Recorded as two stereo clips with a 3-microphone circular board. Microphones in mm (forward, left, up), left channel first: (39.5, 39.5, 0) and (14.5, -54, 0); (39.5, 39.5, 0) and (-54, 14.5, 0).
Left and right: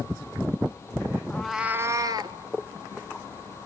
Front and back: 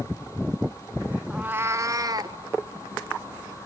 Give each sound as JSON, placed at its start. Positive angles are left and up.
{"t": 1.3, "sound": "a cat meowing", "azimuth_deg": 130, "distance_m": 0.6}